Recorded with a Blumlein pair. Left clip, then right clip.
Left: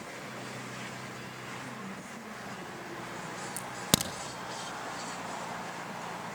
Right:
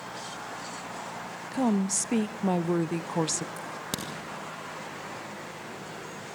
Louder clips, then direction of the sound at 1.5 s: Right 12 dB; 45° right.